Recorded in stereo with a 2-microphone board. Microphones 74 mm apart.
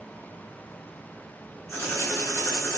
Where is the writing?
40° left (ahead or behind), 1.6 m.